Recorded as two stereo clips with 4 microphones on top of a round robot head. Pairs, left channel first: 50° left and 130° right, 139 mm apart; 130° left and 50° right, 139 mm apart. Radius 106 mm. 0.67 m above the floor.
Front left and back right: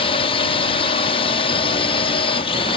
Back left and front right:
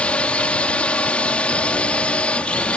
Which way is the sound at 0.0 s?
50° left.